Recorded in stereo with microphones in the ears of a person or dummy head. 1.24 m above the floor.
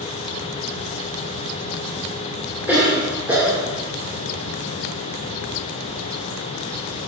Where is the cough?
10° right (ahead or behind), 1.9 m.